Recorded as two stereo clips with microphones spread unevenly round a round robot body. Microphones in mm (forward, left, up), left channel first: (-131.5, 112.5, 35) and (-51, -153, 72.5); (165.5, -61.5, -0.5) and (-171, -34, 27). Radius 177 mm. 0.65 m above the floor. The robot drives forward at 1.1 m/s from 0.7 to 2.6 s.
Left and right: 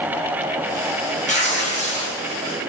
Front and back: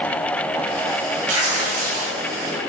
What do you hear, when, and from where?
1.3 s tearing paper: 170° left, 6.5 m